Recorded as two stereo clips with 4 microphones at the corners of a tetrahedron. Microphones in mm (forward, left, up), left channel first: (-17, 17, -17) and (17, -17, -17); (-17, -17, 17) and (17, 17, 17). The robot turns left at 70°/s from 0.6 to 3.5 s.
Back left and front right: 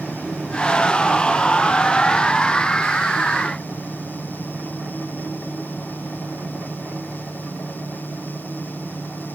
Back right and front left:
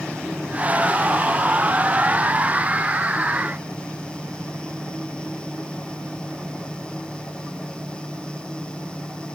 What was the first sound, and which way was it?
Only background noise.